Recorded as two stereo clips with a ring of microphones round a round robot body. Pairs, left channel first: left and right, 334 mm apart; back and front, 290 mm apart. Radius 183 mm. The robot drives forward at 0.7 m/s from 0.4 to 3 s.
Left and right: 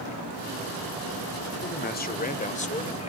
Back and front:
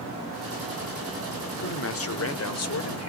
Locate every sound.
1.6 s a man speaking: 145° left, 1.4 m; by 3.1 s 160° left, 2 m